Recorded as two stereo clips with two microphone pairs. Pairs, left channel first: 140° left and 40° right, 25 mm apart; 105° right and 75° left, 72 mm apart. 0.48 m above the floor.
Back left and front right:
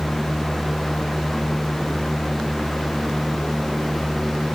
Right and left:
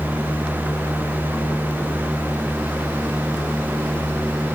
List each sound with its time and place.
Only background noise.